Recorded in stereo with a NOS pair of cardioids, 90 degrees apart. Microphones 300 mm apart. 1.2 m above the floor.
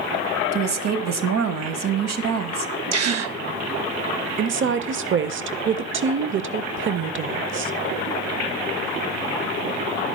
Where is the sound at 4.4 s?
40° right, 0.6 m.